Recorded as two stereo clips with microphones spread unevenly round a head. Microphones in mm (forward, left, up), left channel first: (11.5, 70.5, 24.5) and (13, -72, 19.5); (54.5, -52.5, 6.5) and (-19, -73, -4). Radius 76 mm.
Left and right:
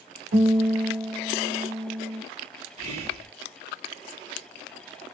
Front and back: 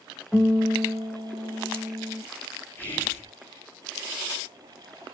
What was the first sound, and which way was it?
A guitar, 75° right.